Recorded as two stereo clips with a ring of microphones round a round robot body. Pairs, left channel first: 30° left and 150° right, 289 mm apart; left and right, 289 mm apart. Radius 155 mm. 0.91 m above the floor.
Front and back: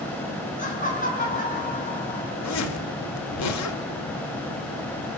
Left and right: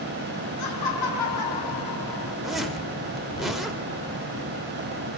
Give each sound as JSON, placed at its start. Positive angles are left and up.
{"t": 0.6, "sound": "laughter", "azimuth_deg": 95, "distance_m": 9.0}
{"t": 2.4, "sound": "a zipper", "azimuth_deg": 0, "distance_m": 3.5}